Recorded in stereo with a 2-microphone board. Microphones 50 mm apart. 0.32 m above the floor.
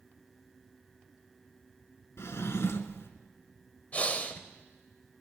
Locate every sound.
2.2 s a drawer: 70° left (ahead or behind), 1.1 m
3.9 s breathing: 30° left (ahead or behind), 1.0 m